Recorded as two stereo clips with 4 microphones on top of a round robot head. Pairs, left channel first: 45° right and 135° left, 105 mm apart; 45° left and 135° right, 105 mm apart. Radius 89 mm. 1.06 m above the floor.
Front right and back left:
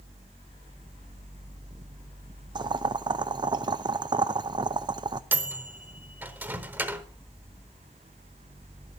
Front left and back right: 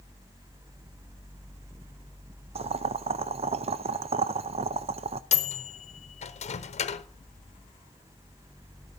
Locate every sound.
2.5 s boiling: 170° right, 0.5 m
5.3 s a microwave: 65° left, 1.0 m